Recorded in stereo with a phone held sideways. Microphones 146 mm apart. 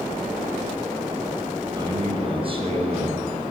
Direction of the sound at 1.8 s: 35° right (ahead or behind).